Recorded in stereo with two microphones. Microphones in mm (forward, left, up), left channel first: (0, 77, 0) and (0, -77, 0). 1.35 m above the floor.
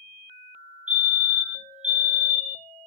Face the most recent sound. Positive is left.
turn(degrees=-50)  # may be behind; listen again after turning